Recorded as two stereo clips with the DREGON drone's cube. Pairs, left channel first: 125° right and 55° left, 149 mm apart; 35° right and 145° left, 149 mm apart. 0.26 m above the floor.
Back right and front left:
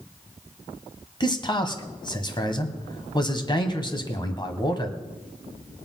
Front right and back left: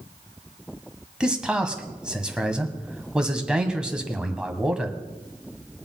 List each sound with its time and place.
1.2 s a man speaking: 135° right, 1.6 m